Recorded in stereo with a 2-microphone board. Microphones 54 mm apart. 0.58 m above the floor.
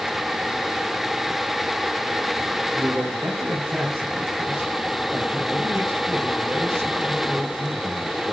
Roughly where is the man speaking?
Right.